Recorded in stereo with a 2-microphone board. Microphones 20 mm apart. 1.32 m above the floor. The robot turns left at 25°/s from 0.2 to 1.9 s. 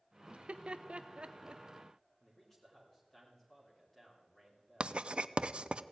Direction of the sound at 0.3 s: 70° right (ahead or behind).